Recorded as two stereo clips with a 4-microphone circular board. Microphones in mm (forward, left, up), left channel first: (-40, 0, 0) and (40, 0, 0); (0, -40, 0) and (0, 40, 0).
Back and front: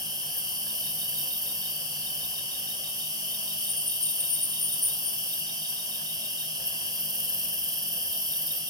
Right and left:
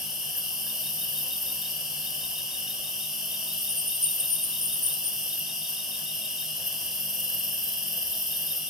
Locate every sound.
0.0 s an insect: 5° left, 0.7 m